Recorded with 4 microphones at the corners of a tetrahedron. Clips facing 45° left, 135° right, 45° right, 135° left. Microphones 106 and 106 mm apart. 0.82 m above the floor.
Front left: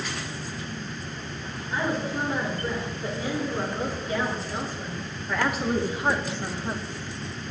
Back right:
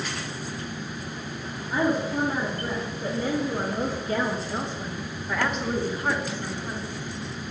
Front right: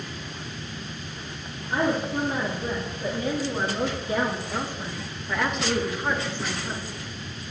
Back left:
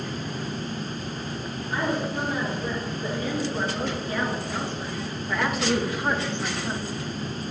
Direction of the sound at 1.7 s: 100° right.